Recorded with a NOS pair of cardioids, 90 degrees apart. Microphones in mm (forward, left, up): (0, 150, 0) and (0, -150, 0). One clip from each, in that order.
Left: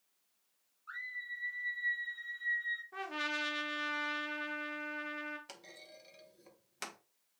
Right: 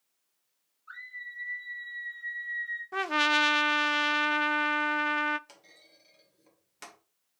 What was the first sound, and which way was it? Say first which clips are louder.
A scream: even; 15° left.